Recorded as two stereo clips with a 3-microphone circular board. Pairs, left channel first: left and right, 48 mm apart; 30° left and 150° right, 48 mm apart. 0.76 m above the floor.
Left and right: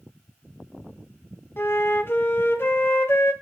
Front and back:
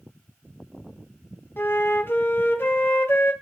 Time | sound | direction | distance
1.6 | a flute | 65° left | 0.7 m